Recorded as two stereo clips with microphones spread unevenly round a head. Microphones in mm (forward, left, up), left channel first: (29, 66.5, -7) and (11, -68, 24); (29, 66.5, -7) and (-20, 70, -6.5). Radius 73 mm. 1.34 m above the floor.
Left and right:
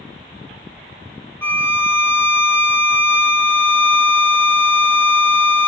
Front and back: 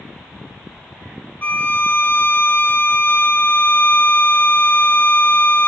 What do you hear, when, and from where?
1.4 s a violin: 25° left, 0.7 m